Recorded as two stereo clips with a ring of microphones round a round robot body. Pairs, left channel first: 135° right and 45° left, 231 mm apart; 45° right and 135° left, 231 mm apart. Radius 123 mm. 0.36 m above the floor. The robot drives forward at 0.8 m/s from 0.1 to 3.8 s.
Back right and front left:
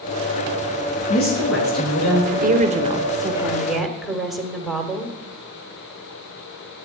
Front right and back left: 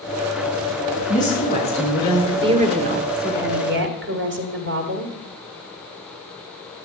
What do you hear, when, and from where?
1.1 s a woman speaking: 105° right, 5.5 m; by 2.3 s 110° right, 5.5 m
2.4 s a woman speaking: 75° left, 1.4 m; by 5.1 s 135° left, 1.6 m